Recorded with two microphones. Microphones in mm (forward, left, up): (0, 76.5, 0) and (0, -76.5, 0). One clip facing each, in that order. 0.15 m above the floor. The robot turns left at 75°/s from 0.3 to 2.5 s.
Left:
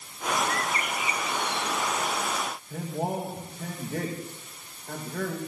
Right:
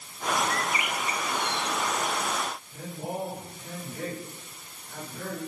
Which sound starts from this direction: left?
A man speaking, at 2.7 s.